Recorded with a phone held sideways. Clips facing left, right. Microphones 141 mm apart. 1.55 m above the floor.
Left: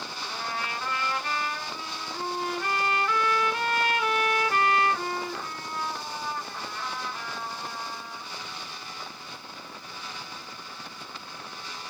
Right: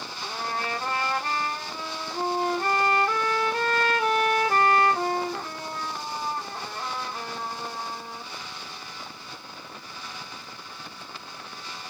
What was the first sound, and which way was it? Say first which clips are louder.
A trumpet: right 4 dB; 35° right (ahead or behind).